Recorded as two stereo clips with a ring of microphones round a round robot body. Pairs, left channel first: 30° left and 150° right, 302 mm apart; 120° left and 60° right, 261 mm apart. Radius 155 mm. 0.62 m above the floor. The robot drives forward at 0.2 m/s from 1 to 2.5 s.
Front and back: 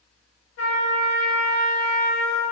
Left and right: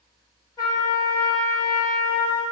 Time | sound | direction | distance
0.6 | a trumpet | 50° left | 0.6 m